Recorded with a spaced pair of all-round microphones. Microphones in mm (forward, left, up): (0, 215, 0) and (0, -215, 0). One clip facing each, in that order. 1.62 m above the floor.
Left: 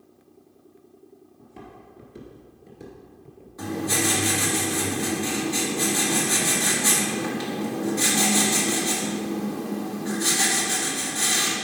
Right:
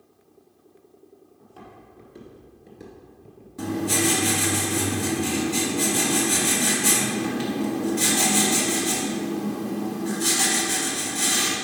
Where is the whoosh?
No whoosh in this recording.